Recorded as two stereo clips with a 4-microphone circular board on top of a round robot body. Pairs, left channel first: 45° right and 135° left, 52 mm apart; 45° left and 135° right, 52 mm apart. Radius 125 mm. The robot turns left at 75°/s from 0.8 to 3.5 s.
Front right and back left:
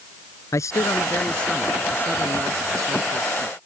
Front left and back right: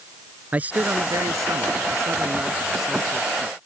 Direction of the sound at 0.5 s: 75° right.